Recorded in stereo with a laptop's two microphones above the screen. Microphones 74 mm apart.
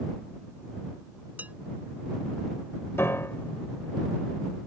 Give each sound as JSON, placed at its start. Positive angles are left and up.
{"t": 1.4, "sound": "dishes clattering", "side_deg": -25}
{"t": 3.0, "sound": "a piano", "side_deg": 35}